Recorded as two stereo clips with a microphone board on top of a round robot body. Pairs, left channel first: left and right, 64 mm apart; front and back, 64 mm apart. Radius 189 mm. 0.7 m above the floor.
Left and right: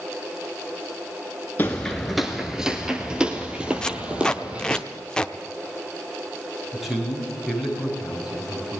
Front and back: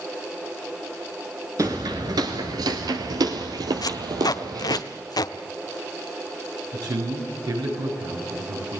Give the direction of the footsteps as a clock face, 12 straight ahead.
7 o'clock.